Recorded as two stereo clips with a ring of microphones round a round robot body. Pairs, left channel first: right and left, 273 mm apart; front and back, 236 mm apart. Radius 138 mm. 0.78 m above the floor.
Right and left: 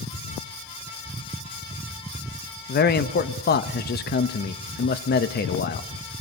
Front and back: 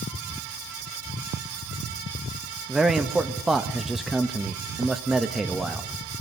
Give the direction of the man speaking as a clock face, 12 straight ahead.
3 o'clock.